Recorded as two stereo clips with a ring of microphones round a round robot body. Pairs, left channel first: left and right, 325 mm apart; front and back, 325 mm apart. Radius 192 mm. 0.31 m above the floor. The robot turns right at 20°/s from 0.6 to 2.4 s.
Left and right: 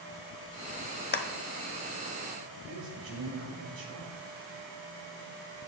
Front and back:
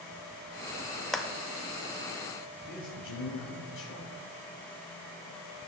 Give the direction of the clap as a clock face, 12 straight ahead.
9 o'clock.